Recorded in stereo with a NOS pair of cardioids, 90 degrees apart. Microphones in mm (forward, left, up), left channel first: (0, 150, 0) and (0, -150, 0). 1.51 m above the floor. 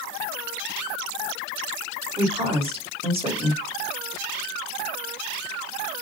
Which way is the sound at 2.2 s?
20° right.